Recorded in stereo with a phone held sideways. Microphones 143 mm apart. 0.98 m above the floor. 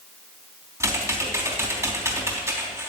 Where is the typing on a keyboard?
20° right (ahead or behind), 3.5 m.